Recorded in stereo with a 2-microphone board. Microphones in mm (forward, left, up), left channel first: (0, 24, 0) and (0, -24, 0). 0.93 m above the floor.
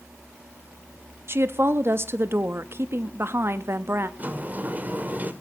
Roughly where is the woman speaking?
Right.